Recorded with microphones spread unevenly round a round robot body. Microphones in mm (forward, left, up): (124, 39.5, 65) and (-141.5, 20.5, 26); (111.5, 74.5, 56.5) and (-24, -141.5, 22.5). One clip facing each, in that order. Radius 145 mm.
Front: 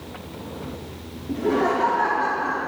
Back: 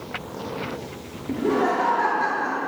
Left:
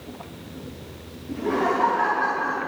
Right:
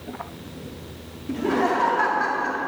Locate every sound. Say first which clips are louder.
1.3 s laughter: even, right 1 dB; 105° right, 1.1 m